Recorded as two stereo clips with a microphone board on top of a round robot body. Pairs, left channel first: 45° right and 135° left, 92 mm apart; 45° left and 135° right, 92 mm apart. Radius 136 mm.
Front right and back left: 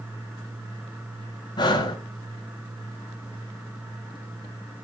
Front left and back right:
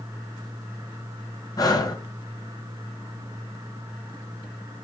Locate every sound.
1.6 s breathing: 5° right, 1.8 m